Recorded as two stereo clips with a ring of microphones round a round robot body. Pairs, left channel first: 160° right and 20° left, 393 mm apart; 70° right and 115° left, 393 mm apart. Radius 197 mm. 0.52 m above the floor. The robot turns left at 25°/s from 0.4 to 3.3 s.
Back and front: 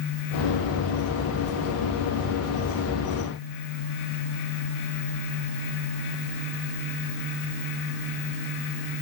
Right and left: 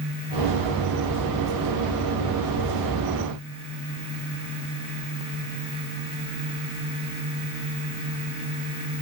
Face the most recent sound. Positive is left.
No sound to turn to.